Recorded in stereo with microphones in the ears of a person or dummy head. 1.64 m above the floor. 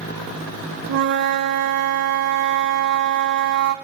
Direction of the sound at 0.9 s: 60° right (ahead or behind).